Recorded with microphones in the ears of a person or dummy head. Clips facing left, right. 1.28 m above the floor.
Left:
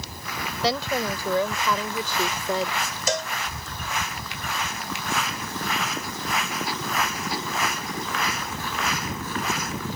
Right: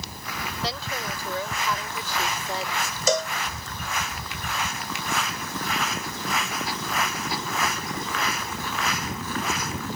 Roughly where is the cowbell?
Right.